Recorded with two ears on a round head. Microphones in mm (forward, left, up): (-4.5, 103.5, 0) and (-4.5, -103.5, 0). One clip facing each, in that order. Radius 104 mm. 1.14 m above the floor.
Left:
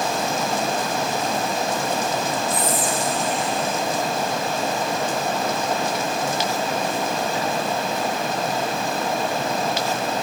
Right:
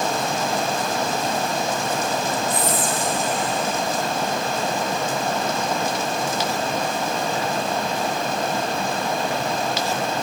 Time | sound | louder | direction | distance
2.5 | whispering | even | 80° right | 3 m